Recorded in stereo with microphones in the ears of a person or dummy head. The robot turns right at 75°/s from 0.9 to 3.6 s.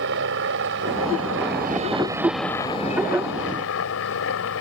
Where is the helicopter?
110° right; by 4.6 s 95° left.